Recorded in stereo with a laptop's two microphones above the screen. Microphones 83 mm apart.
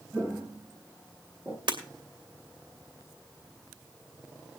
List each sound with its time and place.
0.1 s footsteps: 25° right (ahead or behind), 5 m; by 1.6 s 15° right (ahead or behind), 4 m
1.7 s breaking glass: 90° right, 2.5 m